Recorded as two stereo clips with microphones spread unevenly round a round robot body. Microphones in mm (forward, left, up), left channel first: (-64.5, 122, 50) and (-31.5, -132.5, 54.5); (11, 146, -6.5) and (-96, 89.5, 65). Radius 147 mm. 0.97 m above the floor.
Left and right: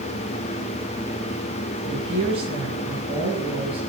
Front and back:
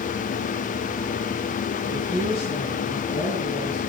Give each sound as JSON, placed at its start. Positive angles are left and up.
{"t": 1.8, "sound": "a woman speaking", "azimuth_deg": -10, "distance_m": 6.0}